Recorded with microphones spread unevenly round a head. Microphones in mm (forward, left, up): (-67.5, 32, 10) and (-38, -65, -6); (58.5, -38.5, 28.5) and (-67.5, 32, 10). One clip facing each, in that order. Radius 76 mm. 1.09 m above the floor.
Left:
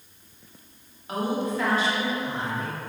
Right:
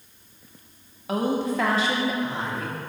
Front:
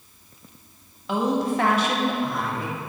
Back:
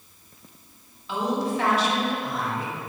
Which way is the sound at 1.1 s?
70° right.